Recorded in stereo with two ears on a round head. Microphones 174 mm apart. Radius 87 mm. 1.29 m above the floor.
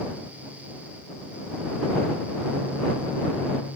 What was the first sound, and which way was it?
Only background noise.